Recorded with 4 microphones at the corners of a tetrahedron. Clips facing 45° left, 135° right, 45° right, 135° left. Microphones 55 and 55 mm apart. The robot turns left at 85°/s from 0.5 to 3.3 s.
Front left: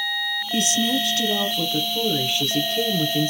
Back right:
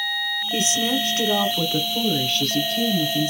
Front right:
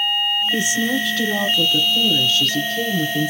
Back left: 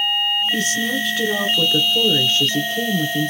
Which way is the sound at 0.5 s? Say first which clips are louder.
Front left 1 dB, front right 1 dB; 90° right.